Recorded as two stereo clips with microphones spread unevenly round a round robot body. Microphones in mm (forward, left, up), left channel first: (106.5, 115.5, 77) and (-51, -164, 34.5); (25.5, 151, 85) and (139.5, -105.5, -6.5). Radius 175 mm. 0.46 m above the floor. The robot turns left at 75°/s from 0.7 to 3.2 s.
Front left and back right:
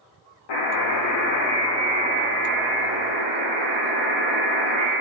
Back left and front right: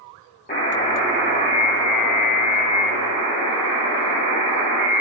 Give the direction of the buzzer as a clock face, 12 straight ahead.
10 o'clock.